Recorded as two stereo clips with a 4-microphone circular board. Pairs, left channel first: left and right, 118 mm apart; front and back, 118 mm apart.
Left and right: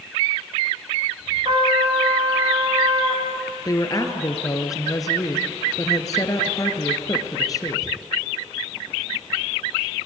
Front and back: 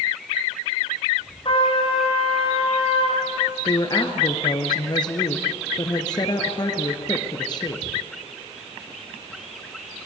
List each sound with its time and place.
1.4 s a trumpet: 45° right, 9.5 m
3.6 s a woman speaking: 40° left, 2 m